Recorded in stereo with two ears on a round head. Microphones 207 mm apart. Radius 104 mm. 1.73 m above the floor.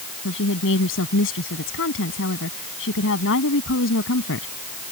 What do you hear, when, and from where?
0.2 s a woman speaking: 55° left (ahead or behind)